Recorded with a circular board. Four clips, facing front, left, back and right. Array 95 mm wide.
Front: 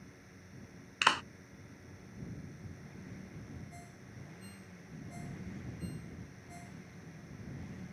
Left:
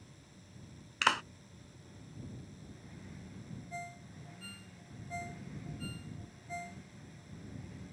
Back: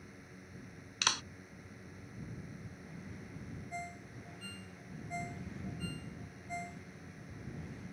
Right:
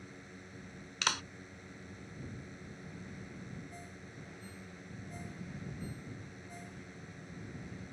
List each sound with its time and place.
0.0 s a drone: 100° right
1.0 s a clap: 40° left
3.7 s a ringtone: 135° left